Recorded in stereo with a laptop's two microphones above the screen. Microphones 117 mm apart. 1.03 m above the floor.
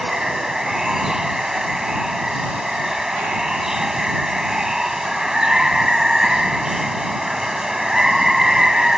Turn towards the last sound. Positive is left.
turn(degrees=-5)  # may be behind; listen again after turning